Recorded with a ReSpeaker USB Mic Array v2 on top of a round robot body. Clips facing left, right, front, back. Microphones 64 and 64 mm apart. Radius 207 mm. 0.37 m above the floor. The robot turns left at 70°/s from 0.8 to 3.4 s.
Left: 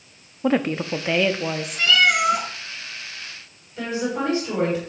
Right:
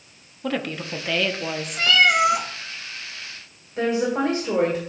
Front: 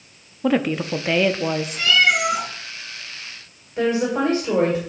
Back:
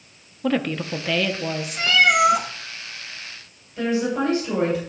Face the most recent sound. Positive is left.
turn(degrees=-50)